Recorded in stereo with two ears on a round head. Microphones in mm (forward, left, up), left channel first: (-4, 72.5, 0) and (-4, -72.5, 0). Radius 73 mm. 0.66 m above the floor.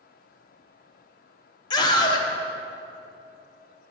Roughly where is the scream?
Left.